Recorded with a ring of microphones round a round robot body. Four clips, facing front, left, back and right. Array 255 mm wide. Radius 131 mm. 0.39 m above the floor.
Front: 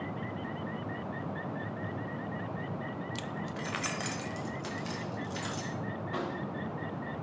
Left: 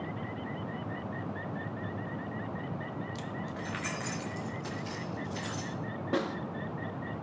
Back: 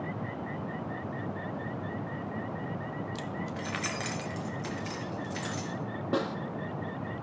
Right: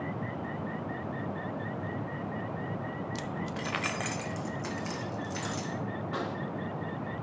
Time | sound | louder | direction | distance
3.1 | keys jangling | right 3 dB, back 2 dB | 50° right | 0.6 m
6.1 | a snare drum | left 5 dB, back 6 dB | 155° left | 1.3 m